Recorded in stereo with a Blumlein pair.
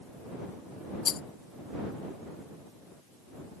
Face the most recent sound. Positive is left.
turn(degrees=25)